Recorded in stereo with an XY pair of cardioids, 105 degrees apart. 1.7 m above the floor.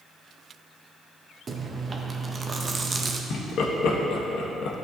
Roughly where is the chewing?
Ahead right.